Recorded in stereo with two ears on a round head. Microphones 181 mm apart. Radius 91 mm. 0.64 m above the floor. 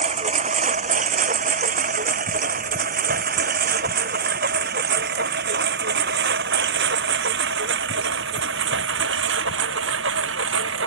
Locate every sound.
0.0 s a lawn mower: 35° right (ahead or behind); by 10.9 s 65° right (ahead or behind)